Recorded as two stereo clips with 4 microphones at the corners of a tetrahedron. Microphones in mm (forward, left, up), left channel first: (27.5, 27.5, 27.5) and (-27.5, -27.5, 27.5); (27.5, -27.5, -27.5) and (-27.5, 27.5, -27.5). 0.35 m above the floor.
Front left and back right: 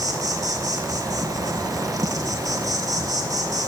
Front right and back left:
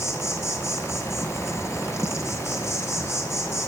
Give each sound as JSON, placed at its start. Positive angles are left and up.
{"t": 0.0, "sound": "an insect", "azimuth_deg": -100, "distance_m": 1.0}